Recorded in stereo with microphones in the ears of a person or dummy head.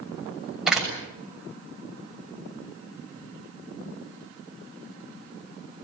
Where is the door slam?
5° right (ahead or behind), 7 m.